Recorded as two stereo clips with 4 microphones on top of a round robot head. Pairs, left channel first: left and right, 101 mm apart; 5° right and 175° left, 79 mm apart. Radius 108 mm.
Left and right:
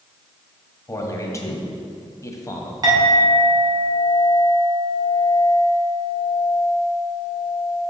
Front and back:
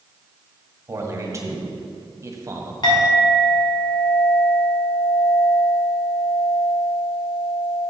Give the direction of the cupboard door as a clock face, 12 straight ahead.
No cupboard door in this recording.